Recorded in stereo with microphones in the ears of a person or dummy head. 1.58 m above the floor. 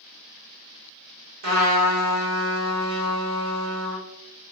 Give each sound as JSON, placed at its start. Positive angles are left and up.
{"t": 1.4, "sound": "a trumpet", "side_deg": -75, "distance_m": 1.3}